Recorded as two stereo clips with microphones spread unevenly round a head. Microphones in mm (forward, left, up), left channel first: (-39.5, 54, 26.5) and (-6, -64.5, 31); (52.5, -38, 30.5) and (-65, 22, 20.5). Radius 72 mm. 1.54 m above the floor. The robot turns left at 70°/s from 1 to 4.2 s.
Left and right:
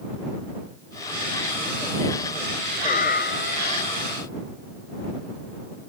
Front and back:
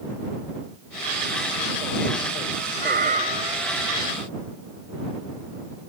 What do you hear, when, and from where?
2.8 s a cat meowing: 130° left; by 4.3 s 35° left